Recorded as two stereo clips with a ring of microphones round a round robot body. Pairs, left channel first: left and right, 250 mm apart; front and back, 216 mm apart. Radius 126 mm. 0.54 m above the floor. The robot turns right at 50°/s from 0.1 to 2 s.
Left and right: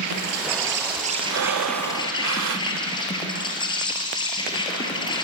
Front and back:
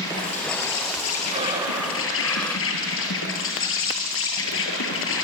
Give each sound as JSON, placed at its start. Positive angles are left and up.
{"t": 0.0, "sound": "an insect", "azimuth_deg": -75, "distance_m": 4.0}
{"t": 1.3, "sound": "breathing", "azimuth_deg": -115, "distance_m": 0.9}